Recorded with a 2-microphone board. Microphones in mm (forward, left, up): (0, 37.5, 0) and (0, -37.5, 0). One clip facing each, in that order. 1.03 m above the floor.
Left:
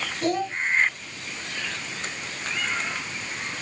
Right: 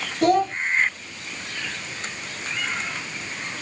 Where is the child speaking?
55° right (ahead or behind), 1.9 m.